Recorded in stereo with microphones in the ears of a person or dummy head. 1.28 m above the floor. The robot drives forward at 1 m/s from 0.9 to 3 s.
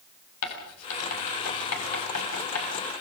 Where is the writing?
85° left, 6 m; by 2.7 s 75° left (ahead or behind), 6 m.